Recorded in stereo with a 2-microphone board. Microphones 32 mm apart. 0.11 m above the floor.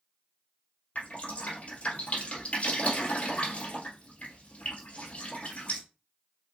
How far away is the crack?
I don't hear a crack.